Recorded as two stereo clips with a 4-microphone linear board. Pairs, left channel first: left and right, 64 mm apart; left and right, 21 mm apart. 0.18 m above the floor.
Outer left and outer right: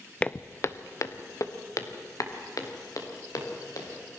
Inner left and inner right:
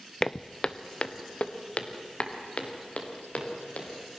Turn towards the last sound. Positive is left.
turn(degrees=65)  # may be behind; listen again after turning